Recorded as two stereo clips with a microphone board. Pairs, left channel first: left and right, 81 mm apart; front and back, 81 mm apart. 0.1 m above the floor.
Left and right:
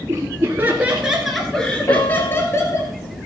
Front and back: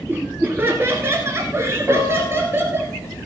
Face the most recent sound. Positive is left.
turn(degrees=135)